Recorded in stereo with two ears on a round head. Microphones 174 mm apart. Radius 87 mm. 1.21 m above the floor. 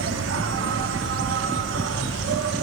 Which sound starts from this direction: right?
An insect, at 0.0 s.